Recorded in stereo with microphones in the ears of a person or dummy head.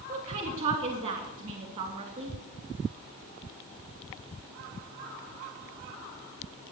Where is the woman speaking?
40° right (ahead or behind), 3 m.